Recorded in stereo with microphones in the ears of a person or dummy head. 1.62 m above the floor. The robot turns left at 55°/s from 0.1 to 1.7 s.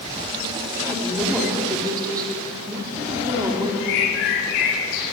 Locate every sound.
0.8 s a woman speaking: 30° left, 4 m; by 3.7 s 20° right, 4 m
3.8 s a bird: 70° left (ahead or behind), 6.5 m